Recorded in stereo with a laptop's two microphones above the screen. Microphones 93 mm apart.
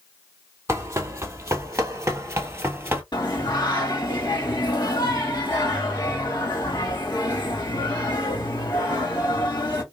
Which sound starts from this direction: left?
Singing, at 3.1 s.